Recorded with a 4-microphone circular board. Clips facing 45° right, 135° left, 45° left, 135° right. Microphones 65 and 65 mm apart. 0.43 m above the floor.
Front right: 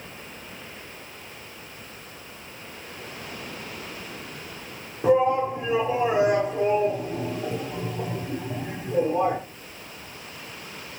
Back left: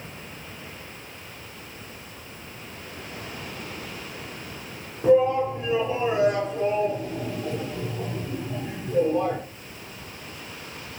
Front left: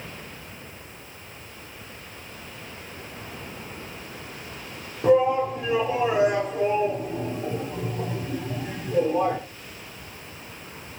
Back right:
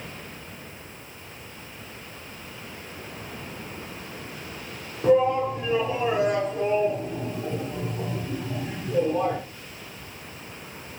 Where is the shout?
20° right, 1.2 m.